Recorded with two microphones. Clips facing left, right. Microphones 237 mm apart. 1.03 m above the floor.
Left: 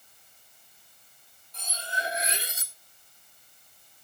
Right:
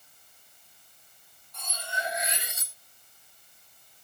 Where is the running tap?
No running tap in this recording.